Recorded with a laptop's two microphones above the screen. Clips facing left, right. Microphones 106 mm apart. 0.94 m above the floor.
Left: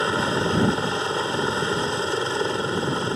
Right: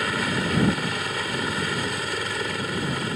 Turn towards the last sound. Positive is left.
turn(degrees=25)  # may be behind; listen again after turning